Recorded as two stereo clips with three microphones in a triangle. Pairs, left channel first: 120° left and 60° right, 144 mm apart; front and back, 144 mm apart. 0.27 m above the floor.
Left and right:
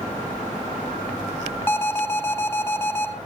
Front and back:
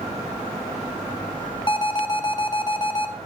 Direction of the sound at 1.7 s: 50° left.